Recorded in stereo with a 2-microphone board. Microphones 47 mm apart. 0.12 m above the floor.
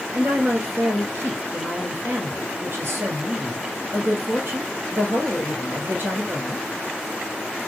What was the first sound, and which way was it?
A woman speaking, 50° right (ahead or behind).